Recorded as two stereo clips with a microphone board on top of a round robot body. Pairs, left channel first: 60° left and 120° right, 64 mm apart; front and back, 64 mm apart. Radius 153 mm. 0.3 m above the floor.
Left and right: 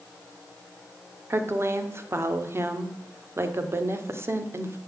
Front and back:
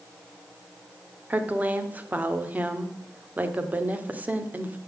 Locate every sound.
1.3 s a woman speaking: 130° right, 1.3 m